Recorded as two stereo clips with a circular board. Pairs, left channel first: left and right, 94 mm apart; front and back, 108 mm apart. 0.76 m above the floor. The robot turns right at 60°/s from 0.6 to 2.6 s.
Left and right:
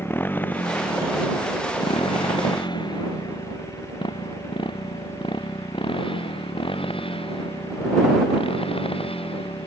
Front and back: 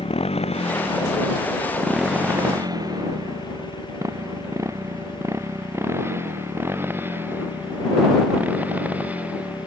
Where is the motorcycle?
20° left; by 9.7 s 105° left.